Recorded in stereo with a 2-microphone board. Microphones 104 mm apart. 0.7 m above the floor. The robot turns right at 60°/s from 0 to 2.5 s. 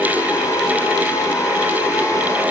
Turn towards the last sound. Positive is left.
No sound to turn to.